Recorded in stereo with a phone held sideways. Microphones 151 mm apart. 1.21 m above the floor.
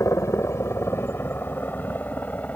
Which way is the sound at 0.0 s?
20° left (ahead or behind).